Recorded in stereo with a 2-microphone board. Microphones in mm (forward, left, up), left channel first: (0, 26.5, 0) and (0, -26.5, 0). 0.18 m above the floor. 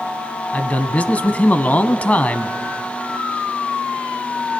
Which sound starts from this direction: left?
A man speaking, at 0.5 s.